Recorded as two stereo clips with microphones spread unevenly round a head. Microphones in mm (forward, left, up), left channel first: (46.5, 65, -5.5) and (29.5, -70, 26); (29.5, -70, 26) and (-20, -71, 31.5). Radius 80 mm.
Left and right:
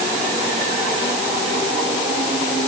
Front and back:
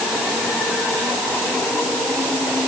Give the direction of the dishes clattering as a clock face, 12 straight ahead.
I don't hear dishes clattering.